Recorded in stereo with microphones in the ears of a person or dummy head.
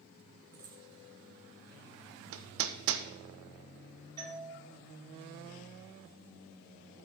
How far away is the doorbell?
About 4.5 m.